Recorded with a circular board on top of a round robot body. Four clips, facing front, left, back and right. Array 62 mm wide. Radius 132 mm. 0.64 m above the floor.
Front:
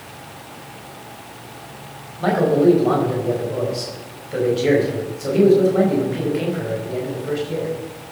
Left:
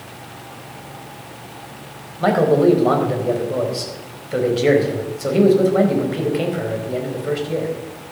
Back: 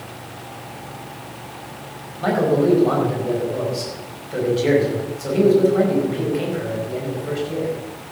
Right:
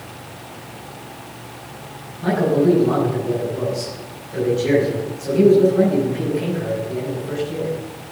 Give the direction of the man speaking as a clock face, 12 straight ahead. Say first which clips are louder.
Left 3 dB, front 2 dB; 9 o'clock.